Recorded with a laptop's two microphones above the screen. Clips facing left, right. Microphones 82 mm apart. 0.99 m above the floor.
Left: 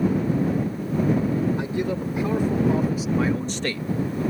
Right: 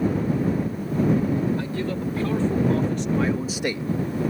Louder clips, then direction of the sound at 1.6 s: Left 2 dB; 20° left (ahead or behind).